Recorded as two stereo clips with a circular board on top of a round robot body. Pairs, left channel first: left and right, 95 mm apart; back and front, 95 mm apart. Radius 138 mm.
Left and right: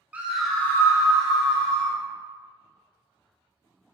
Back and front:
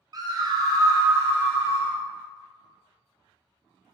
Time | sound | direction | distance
0.1 | a scream | 20° right | 0.9 m